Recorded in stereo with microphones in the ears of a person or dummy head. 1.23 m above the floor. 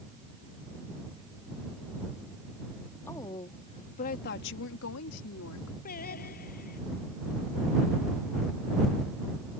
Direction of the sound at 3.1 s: 15° left (ahead or behind).